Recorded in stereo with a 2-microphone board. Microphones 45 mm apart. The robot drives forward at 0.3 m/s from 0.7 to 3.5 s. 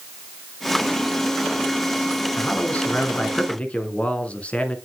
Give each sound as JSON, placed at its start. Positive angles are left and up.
{"t": 2.4, "sound": "a man speaking", "side_deg": 30, "distance_m": 1.2}